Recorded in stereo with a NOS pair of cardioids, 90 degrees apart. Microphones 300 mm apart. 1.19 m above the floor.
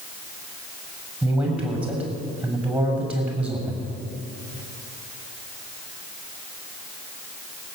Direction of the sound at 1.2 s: 5° right.